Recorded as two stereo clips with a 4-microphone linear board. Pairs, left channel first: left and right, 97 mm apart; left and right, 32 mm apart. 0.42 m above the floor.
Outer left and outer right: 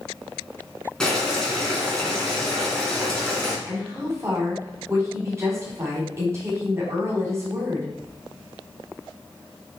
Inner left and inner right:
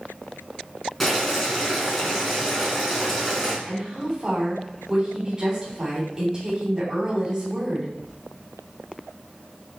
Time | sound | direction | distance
1.0 | boiling | 5° left (ahead or behind) | 2.5 m
3.7 | a woman speaking | 30° right (ahead or behind) | 3 m